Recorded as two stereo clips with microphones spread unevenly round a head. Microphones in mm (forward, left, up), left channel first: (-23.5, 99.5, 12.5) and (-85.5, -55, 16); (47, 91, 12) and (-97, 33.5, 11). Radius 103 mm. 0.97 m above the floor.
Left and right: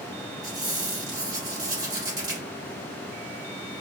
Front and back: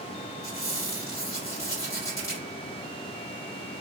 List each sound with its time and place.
0.4 s a squeak: 45° right, 1.3 m